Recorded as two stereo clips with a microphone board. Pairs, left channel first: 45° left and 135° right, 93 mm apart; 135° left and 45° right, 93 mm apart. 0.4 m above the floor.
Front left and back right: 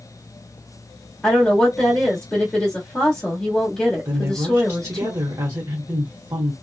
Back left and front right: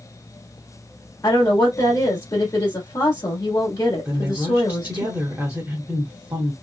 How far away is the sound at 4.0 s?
About 1.0 m.